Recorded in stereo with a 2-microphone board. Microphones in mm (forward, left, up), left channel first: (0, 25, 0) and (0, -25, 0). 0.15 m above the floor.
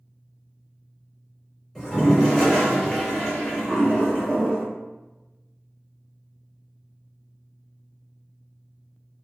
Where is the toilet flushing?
5° left (ahead or behind), 1.9 m.